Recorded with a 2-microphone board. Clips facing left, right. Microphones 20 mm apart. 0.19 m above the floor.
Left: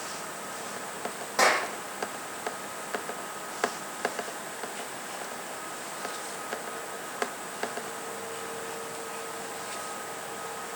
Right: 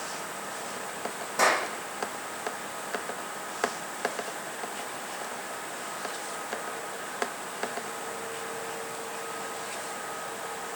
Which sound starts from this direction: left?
A clap, at 1.4 s.